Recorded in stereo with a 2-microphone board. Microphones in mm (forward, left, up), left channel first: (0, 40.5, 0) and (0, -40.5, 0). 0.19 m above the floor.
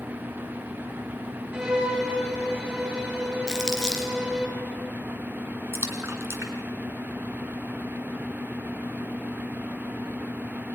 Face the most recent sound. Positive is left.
turn(degrees=-30)  # may be behind; listen again after turning